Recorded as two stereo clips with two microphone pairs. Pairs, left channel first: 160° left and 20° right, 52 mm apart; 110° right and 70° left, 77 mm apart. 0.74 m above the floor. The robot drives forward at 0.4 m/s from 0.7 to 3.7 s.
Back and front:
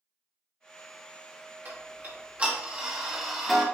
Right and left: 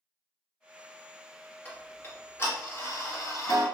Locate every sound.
1.6 s ticking: 55° right, 1.1 m; by 3.6 s 110° right, 1.0 m